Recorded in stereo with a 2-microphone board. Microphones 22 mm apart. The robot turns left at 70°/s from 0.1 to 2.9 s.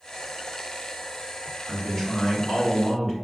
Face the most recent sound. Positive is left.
turn(degrees=20)